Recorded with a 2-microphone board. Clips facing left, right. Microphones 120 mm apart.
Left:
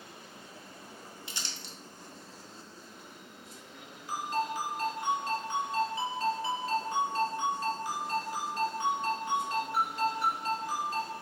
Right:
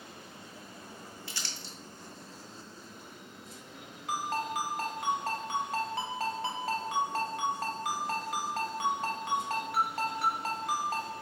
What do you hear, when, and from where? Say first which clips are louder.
1.3 s crumpling: even; 20° left (ahead or behind), 0.7 m
4.1 s a ringtone: left 1 dB; 75° right (ahead or behind), 0.9 m